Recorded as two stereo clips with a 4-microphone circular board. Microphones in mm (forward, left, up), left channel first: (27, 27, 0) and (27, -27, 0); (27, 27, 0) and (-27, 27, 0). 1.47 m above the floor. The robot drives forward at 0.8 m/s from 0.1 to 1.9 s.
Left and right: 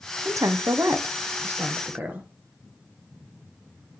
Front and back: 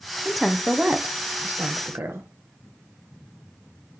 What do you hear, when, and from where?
0.2 s a woman speaking: 80° right, 0.8 m; by 2.3 s 145° right, 1.4 m